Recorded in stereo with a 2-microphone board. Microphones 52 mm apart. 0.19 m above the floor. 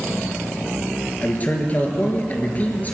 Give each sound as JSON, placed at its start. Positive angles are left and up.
{"t": 1.2, "sound": "a man speaking", "side_deg": 30, "distance_m": 4.0}